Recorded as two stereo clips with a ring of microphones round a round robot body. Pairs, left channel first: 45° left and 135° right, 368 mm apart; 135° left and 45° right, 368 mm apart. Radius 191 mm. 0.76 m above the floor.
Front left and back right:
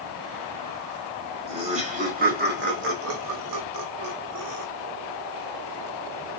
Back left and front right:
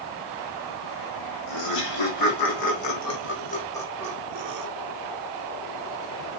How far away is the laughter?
About 1.8 m.